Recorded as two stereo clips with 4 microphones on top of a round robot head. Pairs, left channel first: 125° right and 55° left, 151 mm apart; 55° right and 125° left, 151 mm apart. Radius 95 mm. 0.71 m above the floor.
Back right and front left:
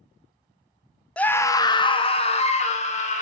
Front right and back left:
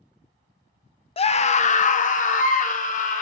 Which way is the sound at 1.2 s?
45° right.